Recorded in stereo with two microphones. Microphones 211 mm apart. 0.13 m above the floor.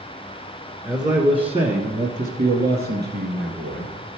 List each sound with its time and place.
0.8 s a man speaking: 15° right (ahead or behind), 1.3 m; by 4.0 s 55° right (ahead or behind), 2.5 m